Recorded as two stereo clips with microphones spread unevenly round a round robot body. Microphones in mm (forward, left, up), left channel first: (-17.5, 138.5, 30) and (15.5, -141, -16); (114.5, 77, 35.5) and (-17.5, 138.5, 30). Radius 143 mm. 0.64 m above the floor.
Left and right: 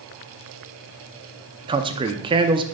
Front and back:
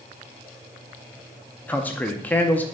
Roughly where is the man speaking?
Right.